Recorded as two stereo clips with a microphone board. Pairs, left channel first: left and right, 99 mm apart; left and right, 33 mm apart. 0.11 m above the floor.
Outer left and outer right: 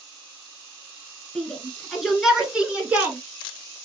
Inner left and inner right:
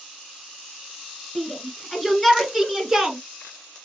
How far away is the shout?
About 1.4 m.